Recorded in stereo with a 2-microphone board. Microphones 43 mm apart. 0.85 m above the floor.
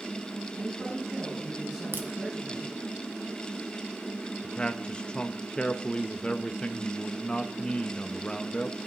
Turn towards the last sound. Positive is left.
turn(degrees=20)  # may be behind; listen again after turning